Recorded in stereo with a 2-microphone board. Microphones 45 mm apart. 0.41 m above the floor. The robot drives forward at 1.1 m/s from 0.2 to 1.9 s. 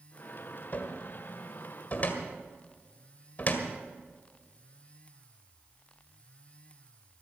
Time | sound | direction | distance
0.7 | a cupboard door | 45° left (ahead or behind) | 1.6 m